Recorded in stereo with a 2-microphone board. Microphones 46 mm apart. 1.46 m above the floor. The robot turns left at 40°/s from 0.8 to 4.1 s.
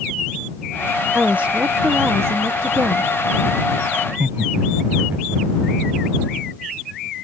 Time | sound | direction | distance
1.1 | a woman speaking | 30° right | ?
4.0 | laughter | 55° right (ahead or behind) | ?